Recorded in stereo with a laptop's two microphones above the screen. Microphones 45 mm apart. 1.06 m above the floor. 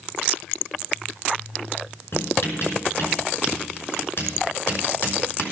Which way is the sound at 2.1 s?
60° left (ahead or behind).